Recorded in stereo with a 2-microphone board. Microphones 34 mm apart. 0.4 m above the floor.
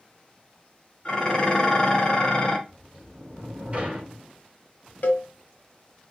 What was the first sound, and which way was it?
Dishes clattering, 25° left (ahead or behind).